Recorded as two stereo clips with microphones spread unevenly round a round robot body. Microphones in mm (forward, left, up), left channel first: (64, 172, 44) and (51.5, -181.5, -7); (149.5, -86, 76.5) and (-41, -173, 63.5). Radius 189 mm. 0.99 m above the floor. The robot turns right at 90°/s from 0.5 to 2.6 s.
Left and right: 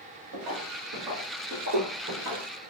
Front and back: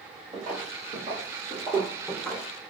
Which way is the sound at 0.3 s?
105° right.